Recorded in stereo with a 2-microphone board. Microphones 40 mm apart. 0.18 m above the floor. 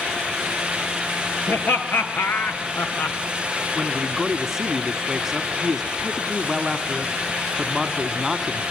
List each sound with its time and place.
1.5 s laughter: 70° left (ahead or behind), 3.5 m; by 3.2 s 50° left (ahead or behind), 2.0 m
3.8 s a man speaking: 10° right (ahead or behind), 1.2 m